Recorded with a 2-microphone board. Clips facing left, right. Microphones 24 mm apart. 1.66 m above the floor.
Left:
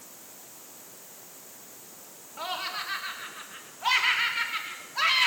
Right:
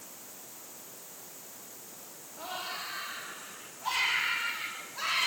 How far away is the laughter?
About 4 m.